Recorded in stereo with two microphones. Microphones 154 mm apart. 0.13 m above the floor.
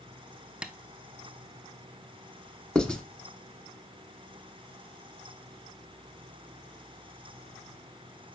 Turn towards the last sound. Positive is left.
turn(degrees=5)  # may be behind; listen again after turning